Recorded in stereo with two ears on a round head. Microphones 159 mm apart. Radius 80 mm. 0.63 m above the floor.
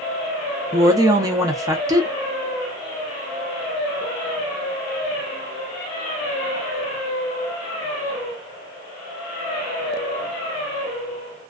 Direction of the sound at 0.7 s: 20° right (ahead or behind).